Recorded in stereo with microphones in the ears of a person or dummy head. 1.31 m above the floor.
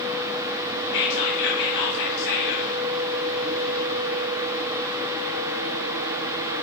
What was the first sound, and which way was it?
Whispering, 65° left (ahead or behind).